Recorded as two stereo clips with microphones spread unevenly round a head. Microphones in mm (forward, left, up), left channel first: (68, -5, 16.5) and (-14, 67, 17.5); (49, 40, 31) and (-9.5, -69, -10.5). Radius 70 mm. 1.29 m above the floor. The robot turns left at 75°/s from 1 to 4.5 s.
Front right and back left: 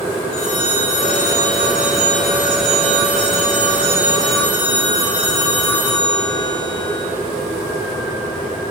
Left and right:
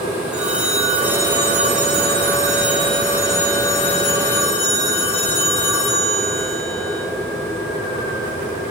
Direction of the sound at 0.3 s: 35° right.